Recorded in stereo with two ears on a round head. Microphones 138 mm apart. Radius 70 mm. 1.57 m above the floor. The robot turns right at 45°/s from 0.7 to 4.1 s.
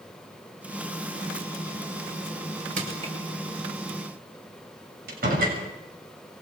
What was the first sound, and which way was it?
Crushing, 50° right (ahead or behind).